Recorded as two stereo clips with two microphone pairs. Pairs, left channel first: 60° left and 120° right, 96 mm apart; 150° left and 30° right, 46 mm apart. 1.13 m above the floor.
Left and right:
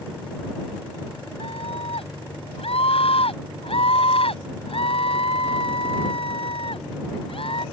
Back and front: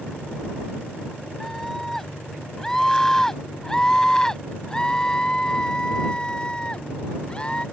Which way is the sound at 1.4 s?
65° left.